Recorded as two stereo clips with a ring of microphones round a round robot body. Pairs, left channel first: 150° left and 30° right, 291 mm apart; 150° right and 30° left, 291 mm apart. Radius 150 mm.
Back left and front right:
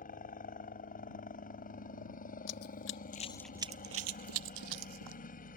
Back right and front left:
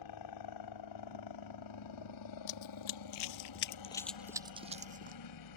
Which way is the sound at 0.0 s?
145° right.